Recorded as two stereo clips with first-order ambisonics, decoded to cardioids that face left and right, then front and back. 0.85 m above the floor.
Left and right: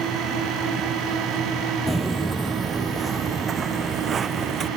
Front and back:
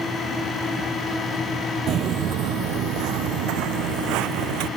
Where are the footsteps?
175° right; by 4.7 s 155° right.